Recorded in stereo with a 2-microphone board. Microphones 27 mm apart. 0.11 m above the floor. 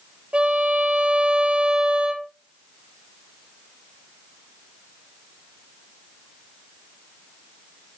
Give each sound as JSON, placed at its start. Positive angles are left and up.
{"t": 0.3, "sound": "a violin", "side_deg": -45, "distance_m": 2.0}